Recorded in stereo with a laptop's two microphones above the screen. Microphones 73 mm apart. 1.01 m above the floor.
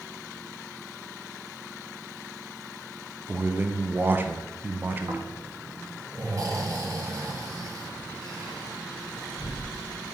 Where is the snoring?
50° right (ahead or behind), 1.5 m.